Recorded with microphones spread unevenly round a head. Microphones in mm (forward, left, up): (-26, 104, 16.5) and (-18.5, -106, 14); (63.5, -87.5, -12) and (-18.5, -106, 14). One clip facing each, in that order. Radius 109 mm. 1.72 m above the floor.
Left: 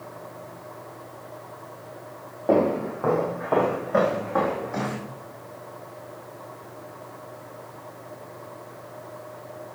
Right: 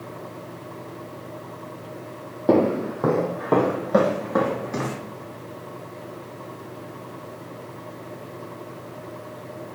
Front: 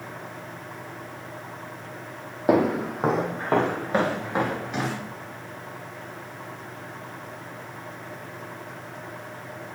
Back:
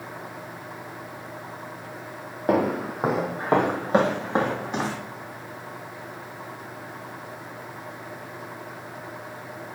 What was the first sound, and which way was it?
Footsteps, 80° right.